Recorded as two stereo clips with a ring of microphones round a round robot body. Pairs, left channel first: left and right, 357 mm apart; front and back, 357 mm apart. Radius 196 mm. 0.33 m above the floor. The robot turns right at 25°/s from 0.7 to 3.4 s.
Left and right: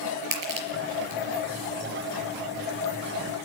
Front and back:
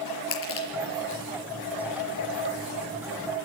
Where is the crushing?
60° right, 4.5 m; by 1.2 s 45° right, 4.5 m.